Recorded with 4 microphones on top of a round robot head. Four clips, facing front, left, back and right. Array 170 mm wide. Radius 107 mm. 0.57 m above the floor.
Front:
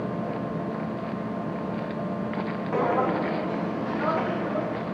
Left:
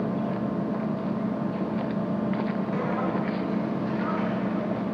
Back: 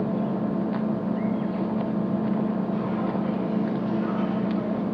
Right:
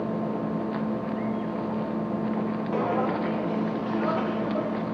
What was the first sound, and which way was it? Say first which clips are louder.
An engine running: left 1 dB, back 4 dB; 155° left.